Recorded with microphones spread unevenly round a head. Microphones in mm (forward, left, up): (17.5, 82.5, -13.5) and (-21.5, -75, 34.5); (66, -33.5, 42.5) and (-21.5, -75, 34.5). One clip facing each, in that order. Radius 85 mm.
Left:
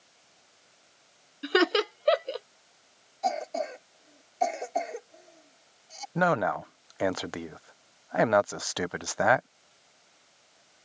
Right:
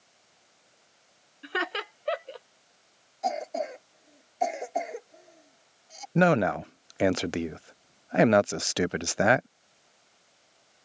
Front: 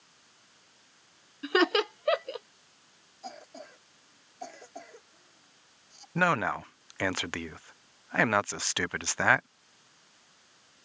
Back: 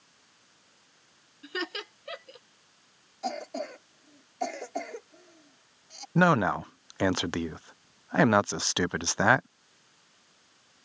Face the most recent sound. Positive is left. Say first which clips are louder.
# right 4 dB, back 4 dB
turn(degrees=-160)